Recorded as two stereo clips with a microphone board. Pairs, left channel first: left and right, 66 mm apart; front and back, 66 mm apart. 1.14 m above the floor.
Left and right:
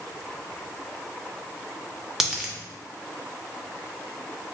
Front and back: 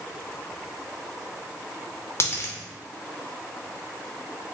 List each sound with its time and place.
2.2 s a dropped coin: 10° right, 0.5 m